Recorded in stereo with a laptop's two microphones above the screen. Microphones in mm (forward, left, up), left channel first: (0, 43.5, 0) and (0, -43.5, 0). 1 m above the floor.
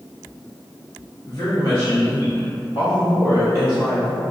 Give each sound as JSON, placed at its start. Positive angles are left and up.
{"t": 1.3, "sound": "a woman speaking", "side_deg": 45, "distance_m": 0.9}